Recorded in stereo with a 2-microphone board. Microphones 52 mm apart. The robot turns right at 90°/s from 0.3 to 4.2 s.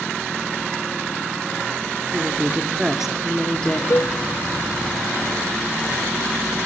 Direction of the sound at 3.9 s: 65° left (ahead or behind).